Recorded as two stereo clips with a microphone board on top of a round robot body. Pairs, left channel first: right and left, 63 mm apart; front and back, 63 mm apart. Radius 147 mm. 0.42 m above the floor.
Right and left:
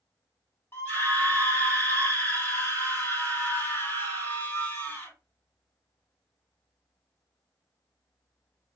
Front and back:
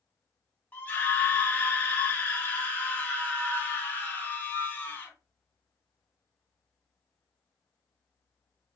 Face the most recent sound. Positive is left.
turn(degrees=-55)